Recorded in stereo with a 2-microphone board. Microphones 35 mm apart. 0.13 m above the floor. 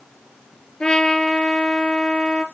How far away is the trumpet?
About 3 m.